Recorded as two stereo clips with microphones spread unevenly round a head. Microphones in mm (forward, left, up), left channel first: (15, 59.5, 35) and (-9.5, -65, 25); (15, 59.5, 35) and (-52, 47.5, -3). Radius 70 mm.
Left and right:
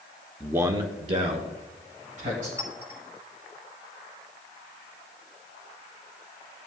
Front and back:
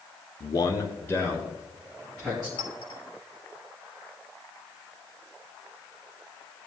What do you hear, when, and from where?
0.4 s a man speaking: 25° right, 0.7 m; by 2.5 s 85° right, 3 m
2.6 s a clink: 30° right, 4.5 m